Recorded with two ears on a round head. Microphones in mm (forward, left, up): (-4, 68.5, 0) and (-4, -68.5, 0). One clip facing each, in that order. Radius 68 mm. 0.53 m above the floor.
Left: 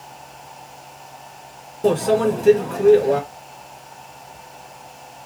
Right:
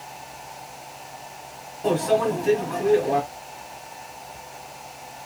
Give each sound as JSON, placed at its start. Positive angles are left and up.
{"t": 1.8, "sound": "a microwave", "side_deg": 60, "distance_m": 1.7}